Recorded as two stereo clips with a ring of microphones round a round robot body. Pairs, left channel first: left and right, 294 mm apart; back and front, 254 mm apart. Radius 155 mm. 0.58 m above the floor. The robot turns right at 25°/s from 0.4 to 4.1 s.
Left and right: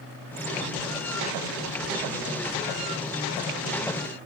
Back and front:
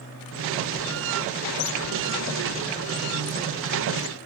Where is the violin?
I don't hear a violin.